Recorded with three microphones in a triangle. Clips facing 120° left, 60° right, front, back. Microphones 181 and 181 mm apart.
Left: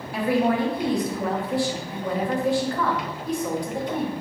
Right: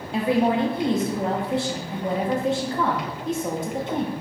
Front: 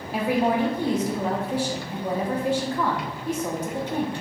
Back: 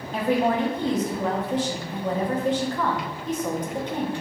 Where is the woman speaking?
65° right, 0.6 m.